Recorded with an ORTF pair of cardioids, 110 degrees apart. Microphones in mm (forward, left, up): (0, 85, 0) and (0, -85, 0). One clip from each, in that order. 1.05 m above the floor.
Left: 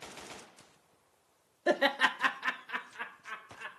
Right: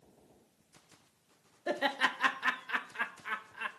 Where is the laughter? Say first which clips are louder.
Left 4 dB; 30° left, 0.6 m; by 3.7 s 40° right, 1.4 m.